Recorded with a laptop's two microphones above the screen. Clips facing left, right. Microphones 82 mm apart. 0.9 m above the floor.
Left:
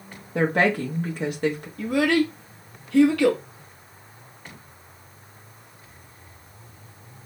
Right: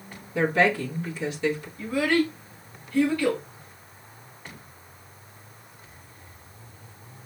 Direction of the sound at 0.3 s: 55° left (ahead or behind).